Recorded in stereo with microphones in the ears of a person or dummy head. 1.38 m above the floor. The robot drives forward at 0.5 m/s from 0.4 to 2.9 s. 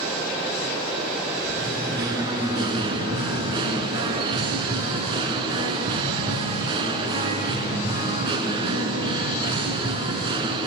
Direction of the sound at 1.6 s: 25° right (ahead or behind).